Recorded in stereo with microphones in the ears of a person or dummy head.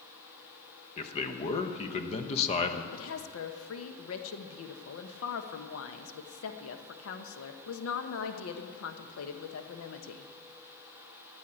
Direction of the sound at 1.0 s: 35° left (ahead or behind).